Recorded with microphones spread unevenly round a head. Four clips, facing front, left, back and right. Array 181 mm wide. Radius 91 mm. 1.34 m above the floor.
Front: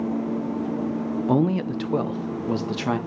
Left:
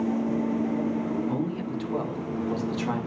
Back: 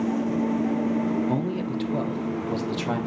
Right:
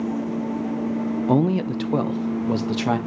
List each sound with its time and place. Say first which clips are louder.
1.3 s a man speaking: right 9 dB, front 5 dB; 45° right, 0.9 m; by 3.0 s 60° right, 2 m